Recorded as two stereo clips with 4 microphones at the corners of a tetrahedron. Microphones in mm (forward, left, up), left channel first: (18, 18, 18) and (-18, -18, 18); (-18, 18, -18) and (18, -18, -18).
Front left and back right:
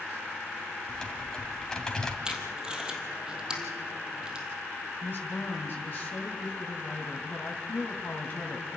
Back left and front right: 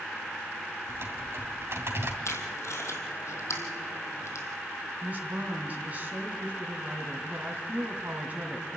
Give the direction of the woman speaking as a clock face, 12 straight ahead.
12 o'clock.